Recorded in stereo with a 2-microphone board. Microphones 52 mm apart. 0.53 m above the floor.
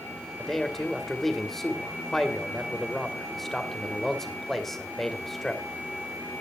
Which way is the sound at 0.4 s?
5° left (ahead or behind).